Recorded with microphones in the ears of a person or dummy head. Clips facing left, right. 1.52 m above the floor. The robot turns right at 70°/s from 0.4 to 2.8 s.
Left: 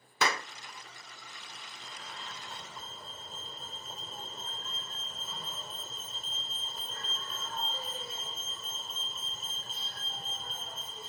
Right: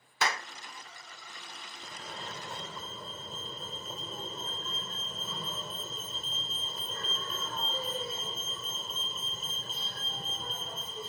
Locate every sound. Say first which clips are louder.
0.2 s a clap: left 2 dB; 75° left (ahead or behind); by 0.5 s 70° left (ahead or behind)
1.8 s a fire alarm: right 4 dB; 175° right; by 11.1 s 110° right